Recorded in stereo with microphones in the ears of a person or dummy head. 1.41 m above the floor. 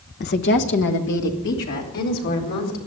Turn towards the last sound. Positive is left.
turn(degrees=65)  # may be behind; listen again after turning